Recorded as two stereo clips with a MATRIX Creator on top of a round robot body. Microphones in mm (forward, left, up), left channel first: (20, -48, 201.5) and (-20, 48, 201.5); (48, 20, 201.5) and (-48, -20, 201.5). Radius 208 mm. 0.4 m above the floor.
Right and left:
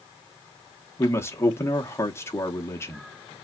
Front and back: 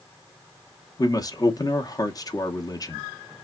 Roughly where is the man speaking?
Ahead.